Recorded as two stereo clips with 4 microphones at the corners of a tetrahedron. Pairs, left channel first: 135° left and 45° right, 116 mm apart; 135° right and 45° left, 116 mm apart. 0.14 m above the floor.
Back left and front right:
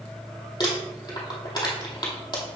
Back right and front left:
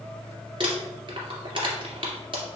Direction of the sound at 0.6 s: 90° left.